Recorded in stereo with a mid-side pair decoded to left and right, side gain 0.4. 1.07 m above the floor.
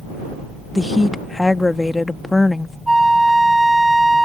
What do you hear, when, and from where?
0.8 s a woman speaking: 20° left
2.9 s a flute: 10° right